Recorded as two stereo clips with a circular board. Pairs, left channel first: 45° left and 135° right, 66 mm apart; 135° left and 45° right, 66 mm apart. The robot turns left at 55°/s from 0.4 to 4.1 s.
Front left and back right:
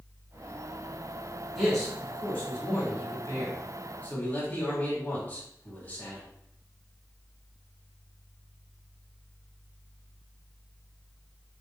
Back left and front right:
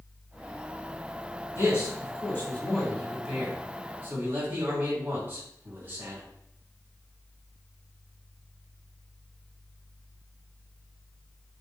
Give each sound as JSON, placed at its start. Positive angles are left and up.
{"t": 1.6, "sound": "a man speaking", "azimuth_deg": 135, "distance_m": 1.5}